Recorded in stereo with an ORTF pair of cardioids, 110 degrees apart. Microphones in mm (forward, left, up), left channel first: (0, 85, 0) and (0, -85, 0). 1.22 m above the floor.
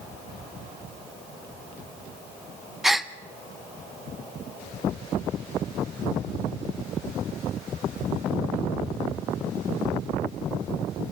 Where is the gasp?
Straight ahead, 0.7 m.